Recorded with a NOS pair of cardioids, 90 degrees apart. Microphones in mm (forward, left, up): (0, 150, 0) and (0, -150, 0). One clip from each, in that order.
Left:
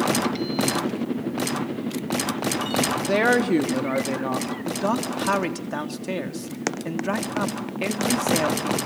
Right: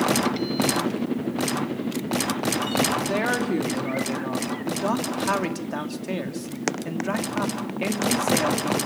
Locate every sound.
3.0 s a woman speaking: 45° left, 3 m
4.7 s a man speaking: 15° left, 3.5 m